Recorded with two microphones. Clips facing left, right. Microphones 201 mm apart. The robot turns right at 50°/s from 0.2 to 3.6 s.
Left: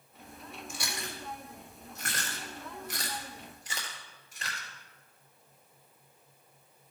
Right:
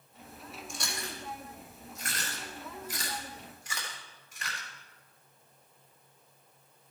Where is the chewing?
Centre (ahead or behind), 3.5 m; by 4.7 s 35° left (ahead or behind), 3.5 m.